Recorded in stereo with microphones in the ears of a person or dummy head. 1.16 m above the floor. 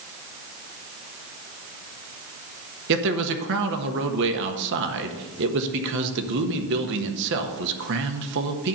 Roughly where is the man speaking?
Right.